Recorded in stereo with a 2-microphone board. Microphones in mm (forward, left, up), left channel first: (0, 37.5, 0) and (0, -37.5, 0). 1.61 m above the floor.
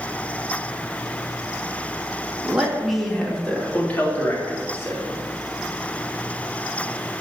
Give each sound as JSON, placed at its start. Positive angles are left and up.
{"t": 2.4, "sound": "a man speaking", "side_deg": -10, "distance_m": 2.5}